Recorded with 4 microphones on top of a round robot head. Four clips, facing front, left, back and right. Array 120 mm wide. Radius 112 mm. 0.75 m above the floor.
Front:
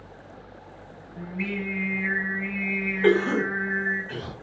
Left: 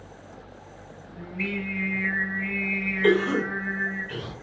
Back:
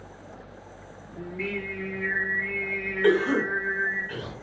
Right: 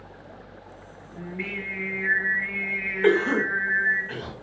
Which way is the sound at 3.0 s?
50° right.